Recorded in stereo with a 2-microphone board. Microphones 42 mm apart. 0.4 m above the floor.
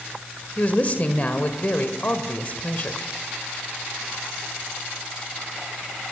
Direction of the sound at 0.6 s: 35° left (ahead or behind).